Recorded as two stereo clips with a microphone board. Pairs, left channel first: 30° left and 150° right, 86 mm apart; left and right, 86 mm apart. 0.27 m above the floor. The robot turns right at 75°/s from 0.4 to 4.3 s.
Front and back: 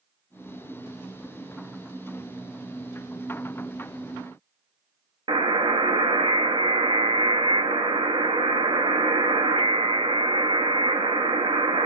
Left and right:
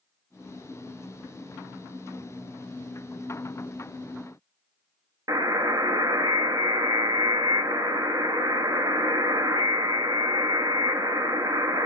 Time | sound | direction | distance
5.3 | a buzzer | 135° right | 0.7 m